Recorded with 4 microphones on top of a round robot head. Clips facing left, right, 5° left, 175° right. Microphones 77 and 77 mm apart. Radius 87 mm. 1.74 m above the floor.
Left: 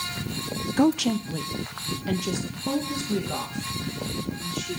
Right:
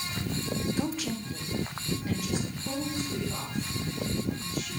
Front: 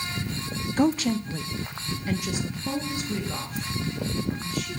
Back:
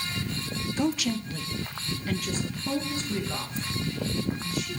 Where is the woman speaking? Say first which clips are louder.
Left 10 dB, front 5 dB; 50° left, 0.6 m; by 4.8 s 90° left, 6 m.